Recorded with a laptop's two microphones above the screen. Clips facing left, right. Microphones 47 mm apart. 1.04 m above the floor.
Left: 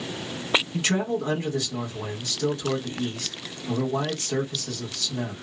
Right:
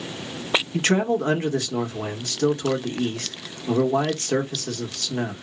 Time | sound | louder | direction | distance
0.7 | a man speaking | right 4 dB | 50° right (ahead or behind) | 1.0 m